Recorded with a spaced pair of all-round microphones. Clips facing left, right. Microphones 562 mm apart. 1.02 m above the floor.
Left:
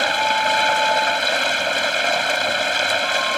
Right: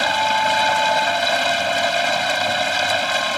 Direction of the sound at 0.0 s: 20° right (ahead or behind).